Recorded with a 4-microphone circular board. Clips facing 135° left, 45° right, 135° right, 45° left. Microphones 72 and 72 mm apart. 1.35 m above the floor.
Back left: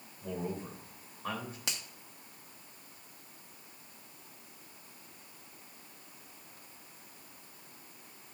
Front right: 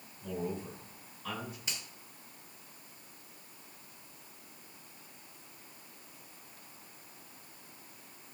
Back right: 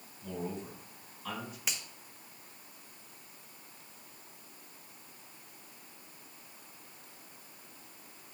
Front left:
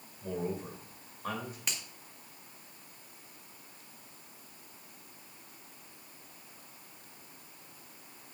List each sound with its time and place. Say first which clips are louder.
0.2 s a man speaking: front right 1 dB, front left 3 dB; 85° left, 2.5 m
1.7 s a finger snap: back left 1 dB, back right 2 dB; 135° left, 1.4 m